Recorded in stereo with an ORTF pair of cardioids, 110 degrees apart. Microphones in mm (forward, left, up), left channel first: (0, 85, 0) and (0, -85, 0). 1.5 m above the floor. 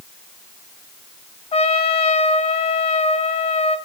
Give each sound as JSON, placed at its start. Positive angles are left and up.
{"t": 1.5, "sound": "a trumpet", "azimuth_deg": 35, "distance_m": 1.6}